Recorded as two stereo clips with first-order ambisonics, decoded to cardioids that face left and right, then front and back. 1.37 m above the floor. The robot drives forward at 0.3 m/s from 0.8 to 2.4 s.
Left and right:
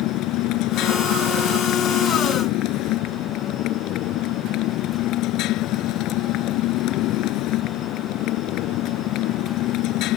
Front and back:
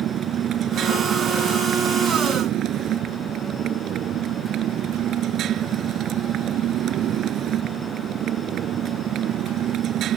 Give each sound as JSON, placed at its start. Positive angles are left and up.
{"t": 0.0, "sound": "a motorcycle", "azimuth_deg": 125}